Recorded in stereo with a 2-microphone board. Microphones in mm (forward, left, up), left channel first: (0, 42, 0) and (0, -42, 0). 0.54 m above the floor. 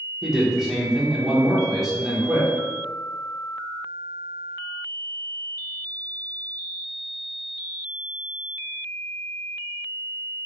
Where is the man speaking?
5° right (ahead or behind), 0.9 m.